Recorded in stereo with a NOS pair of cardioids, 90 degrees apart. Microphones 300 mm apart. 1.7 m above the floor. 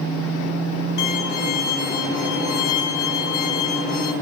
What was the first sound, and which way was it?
A violin, 65° left.